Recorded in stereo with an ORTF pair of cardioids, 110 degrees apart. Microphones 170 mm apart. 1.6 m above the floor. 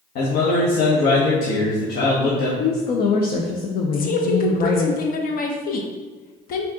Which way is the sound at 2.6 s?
60° left.